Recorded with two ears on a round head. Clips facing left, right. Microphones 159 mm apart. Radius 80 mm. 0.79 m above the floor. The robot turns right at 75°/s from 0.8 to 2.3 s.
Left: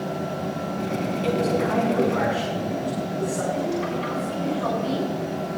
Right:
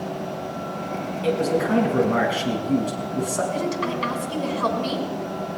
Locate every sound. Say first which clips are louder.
1.2 s a man speaking: right 2 dB; 175° left, 6 m; by 3.4 s 105° right, 6 m
3.5 s a woman speaking: even; 80° right, 6 m